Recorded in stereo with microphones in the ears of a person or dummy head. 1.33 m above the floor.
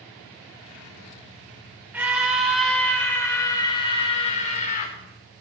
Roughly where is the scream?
Centre.